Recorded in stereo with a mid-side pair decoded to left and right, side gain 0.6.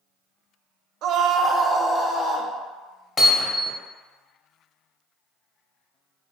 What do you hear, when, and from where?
1.0 s a scream: 60° right, 0.5 m; by 2.5 s 25° left, 0.7 m
3.2 s hammering: 30° left, 1.0 m